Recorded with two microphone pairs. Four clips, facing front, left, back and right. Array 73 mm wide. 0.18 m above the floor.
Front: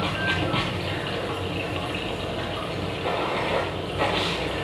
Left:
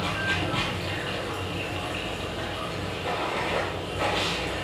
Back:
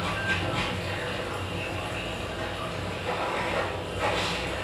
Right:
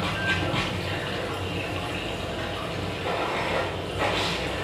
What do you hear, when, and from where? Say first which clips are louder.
0.0 s running water: right 1 dB, front 3 dB; 5° right, 2.5 m